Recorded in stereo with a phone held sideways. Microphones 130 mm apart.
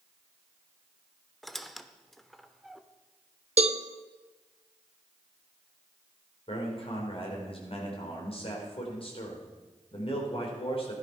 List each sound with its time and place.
1.4 s a squeak: centre (ahead or behind), 0.8 m
3.6 s a cowbell: 55° right (ahead or behind), 0.9 m
6.5 s a man speaking: 50° left (ahead or behind), 4.5 m